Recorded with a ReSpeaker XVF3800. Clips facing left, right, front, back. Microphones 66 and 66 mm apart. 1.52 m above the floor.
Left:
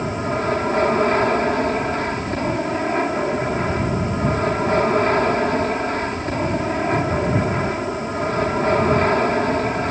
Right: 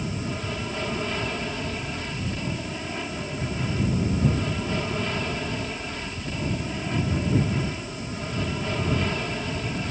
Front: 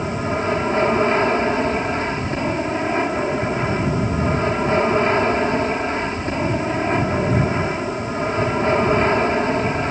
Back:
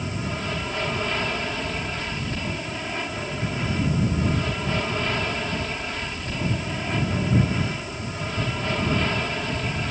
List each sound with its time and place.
0.0 s an aircraft: 55° left